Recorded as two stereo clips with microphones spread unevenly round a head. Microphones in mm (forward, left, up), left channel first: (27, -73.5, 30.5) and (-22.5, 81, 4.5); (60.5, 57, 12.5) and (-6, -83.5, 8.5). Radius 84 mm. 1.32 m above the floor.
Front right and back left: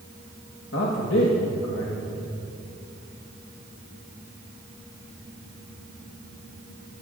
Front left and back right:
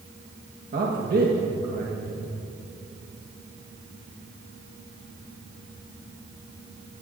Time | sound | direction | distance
0.7 | a man speaking | 85° right | 1.4 m